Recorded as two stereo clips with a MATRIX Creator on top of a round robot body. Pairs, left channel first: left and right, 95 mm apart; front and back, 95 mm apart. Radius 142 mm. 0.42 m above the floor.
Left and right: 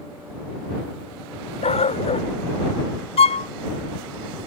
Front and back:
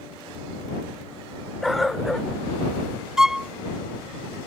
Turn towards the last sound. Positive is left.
turn(degrees=95)